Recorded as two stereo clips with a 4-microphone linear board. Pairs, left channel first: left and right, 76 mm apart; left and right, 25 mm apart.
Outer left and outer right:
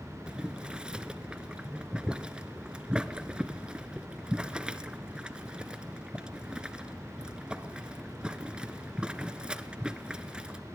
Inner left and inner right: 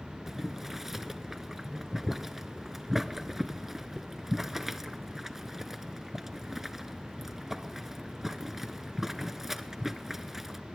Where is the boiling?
15° right (ahead or behind), 0.6 m.